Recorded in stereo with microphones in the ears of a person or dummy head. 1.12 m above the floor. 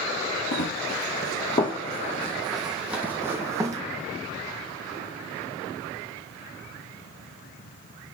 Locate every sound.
0.5 s running footsteps: 45° left (ahead or behind), 1.6 m; by 3.8 s 20° right (ahead or behind), 2 m